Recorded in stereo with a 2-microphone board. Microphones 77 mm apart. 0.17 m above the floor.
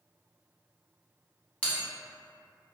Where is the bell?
15° left (ahead or behind), 0.8 m.